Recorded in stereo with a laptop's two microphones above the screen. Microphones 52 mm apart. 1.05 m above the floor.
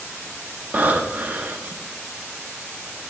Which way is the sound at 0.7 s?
30° right (ahead or behind).